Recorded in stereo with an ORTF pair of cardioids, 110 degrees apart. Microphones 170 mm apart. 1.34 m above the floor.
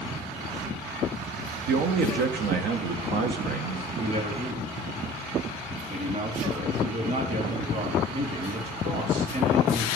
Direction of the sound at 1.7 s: 65° right.